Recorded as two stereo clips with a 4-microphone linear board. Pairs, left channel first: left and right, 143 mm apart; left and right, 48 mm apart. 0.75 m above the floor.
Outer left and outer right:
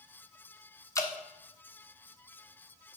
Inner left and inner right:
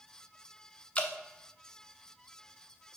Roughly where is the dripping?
Left.